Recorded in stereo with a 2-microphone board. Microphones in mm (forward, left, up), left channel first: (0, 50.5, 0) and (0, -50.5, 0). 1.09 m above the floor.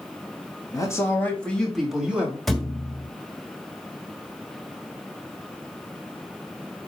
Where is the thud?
Centre (ahead or behind), 1.3 m.